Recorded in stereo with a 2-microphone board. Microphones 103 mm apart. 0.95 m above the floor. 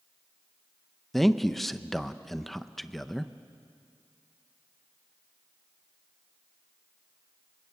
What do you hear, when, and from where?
1.1 s a man speaking: centre (ahead or behind), 0.8 m